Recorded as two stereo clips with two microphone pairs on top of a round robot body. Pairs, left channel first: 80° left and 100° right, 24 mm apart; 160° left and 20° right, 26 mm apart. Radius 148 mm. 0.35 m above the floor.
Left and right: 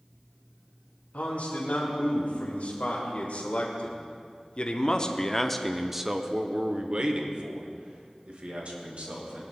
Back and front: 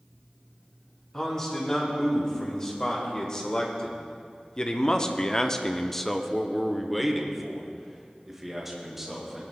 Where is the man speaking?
95° left, 3.5 m; by 9.4 s 100° right, 3 m.